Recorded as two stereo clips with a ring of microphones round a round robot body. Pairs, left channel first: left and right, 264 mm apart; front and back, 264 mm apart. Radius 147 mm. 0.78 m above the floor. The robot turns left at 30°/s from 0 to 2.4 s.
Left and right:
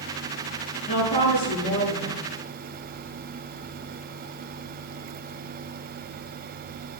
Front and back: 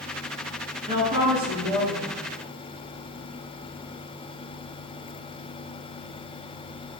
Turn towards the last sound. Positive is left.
turn(degrees=60)